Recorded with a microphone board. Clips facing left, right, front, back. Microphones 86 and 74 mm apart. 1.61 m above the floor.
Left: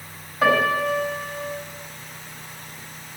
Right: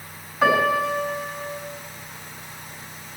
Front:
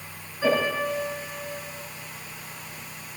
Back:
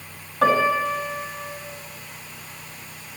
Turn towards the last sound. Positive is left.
turn(degrees=180)